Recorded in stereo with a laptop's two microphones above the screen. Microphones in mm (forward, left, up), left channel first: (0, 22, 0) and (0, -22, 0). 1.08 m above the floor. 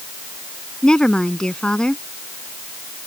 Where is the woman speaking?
20° left (ahead or behind).